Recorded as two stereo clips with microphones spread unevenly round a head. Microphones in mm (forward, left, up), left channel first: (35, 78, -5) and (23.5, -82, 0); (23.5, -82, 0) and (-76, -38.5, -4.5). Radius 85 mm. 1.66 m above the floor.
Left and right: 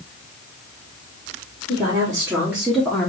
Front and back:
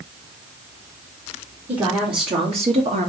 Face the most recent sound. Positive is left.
turn(degrees=165)